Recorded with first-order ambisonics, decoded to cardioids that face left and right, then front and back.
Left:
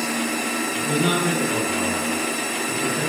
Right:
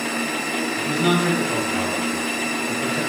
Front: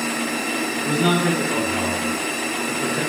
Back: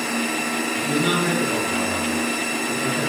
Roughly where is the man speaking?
Ahead.